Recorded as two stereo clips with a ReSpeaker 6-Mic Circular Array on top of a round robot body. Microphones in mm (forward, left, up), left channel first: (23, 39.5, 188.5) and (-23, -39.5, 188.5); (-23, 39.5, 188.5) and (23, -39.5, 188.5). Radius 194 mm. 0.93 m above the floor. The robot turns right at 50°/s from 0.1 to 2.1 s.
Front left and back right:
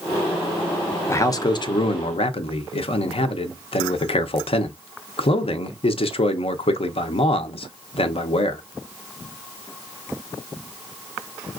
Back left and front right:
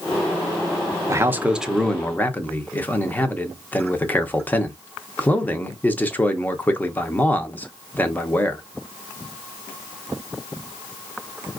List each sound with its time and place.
1.1 s a man speaking: straight ahead, 0.8 m; by 8.6 s 50° left, 0.8 m